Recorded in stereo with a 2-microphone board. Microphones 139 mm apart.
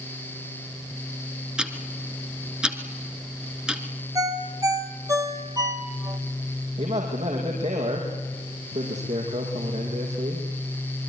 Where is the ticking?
5° right (ahead or behind), 2 m.